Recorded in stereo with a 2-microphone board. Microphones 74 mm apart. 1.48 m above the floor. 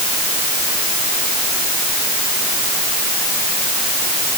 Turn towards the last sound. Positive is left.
No sound to turn to.